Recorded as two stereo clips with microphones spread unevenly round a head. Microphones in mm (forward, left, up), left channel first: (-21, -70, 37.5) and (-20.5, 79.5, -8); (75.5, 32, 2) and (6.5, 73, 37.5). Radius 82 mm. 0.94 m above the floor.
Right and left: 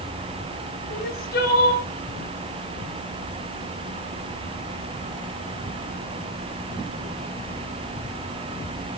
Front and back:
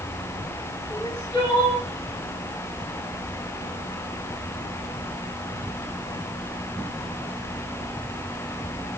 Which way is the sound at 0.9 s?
105° right.